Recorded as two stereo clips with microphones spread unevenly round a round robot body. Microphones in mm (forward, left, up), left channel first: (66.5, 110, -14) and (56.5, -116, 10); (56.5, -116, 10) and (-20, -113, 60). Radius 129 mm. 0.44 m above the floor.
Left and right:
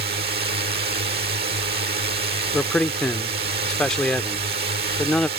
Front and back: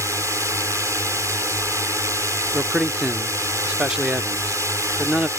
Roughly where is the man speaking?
Ahead.